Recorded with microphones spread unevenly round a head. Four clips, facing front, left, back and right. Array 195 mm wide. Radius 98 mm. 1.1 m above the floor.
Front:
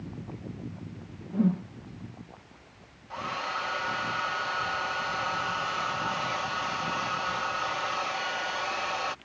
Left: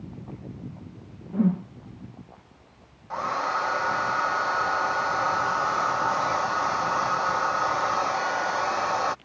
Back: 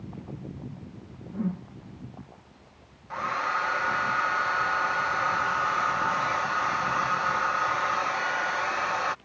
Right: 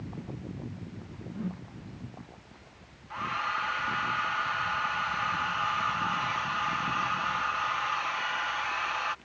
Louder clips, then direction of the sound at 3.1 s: Left 6 dB, back 5 dB; 100° left.